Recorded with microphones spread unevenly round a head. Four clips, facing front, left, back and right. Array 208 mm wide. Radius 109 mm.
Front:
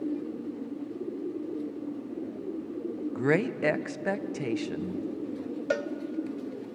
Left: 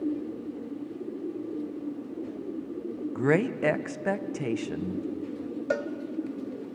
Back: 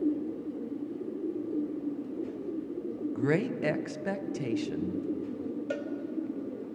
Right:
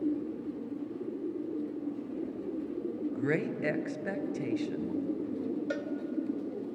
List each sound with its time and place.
3.1 s a woman speaking: 55° left, 0.7 m
5.7 s a cowbell: 40° left, 0.8 m